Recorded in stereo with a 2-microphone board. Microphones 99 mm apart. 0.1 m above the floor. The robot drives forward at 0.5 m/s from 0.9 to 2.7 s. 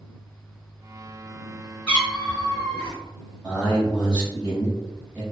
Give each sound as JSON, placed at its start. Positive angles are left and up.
{"t": 1.9, "sound": "a cat meowing", "side_deg": 10, "distance_m": 1.7}
{"t": 3.4, "sound": "a man speaking", "side_deg": -5, "distance_m": 1.3}